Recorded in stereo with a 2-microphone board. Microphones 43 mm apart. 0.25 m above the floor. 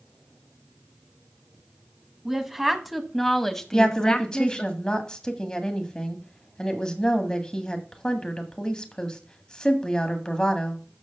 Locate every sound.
2.2 s a woman speaking: 10° right (ahead or behind), 1.7 m; by 4.7 s 30° left (ahead or behind), 1.1 m
3.7 s a woman speaking: 20° left (ahead or behind), 1.6 m